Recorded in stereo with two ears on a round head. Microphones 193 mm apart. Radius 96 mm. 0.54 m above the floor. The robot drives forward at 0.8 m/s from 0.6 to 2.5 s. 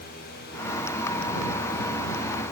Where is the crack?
No crack in this recording.